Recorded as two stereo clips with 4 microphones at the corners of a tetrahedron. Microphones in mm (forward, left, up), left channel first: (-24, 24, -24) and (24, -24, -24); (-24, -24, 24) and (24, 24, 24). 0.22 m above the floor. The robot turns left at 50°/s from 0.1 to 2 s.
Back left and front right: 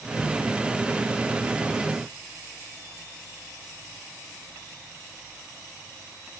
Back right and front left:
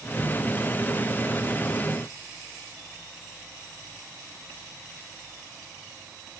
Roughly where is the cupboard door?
I don't hear a cupboard door.